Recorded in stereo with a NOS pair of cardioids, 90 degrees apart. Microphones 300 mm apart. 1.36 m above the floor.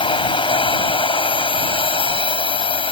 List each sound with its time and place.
0.0 s a machine running: 15° left